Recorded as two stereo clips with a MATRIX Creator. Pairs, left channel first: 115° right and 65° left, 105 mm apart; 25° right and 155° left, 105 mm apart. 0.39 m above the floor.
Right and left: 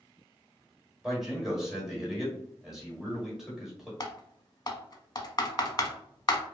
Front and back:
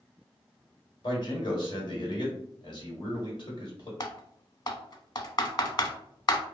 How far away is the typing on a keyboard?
About 0.6 m.